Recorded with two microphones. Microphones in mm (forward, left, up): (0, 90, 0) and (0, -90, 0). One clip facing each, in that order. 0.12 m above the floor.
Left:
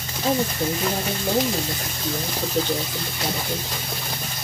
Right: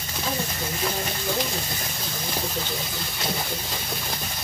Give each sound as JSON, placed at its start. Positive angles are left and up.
{"t": 0.2, "sound": "a woman speaking", "side_deg": 50, "distance_m": 3.5}